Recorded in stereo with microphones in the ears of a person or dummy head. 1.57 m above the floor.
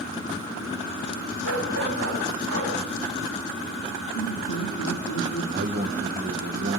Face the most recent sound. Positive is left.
turn(degrees=-45)  # may be behind; listen again after turning